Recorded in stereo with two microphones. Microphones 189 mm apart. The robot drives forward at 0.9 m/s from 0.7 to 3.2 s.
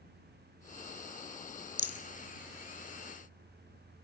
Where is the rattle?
65° left (ahead or behind), 1.3 m; by 2.0 s 60° left (ahead or behind), 1.3 m.